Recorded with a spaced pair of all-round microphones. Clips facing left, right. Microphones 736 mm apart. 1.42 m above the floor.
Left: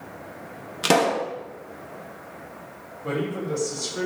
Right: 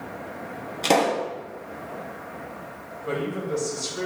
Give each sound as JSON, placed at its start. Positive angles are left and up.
{"t": 0.8, "sound": "a pop", "side_deg": 45, "distance_m": 0.9}
{"t": 3.0, "sound": "a man speaking", "side_deg": 75, "distance_m": 4.0}